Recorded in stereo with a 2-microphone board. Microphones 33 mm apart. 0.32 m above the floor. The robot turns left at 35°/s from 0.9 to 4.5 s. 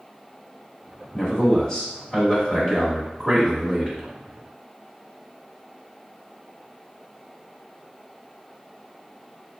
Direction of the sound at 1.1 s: 25° left (ahead or behind).